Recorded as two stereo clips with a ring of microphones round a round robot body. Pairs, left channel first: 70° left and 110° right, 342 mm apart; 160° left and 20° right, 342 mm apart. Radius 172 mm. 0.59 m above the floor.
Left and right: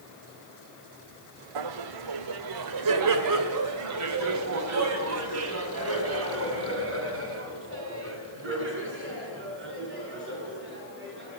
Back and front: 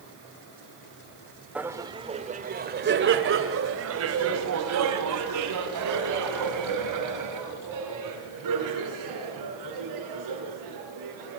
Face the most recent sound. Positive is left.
turn(degrees=-55)